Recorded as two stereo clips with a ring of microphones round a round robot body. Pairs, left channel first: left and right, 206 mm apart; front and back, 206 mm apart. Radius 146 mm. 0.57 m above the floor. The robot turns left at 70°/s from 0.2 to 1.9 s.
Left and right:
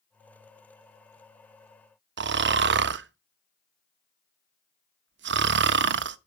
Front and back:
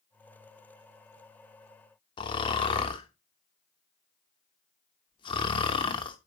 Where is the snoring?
70° right, 0.6 m.